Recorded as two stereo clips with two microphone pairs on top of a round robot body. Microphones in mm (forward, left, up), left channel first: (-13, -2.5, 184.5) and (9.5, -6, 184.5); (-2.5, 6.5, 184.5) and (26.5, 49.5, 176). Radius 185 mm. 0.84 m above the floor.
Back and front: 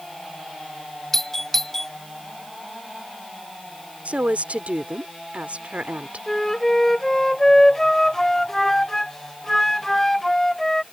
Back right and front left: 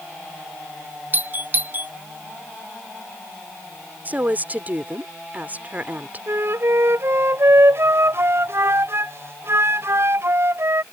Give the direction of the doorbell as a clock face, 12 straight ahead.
9 o'clock.